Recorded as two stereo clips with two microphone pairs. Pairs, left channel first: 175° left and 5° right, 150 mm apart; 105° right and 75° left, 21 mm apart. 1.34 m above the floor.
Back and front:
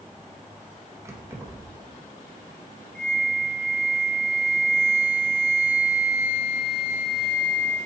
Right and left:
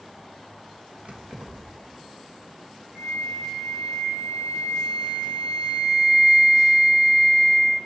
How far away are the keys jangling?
About 1.4 m.